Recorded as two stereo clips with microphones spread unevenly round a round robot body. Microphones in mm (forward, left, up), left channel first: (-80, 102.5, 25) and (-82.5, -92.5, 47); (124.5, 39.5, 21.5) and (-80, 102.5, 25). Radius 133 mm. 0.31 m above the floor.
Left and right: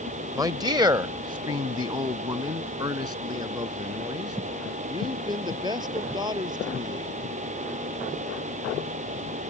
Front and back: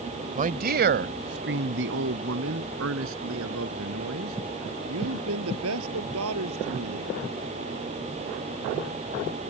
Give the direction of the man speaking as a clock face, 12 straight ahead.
5 o'clock.